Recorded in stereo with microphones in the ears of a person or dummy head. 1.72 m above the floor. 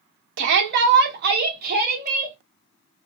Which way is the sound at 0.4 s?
60° right (ahead or behind).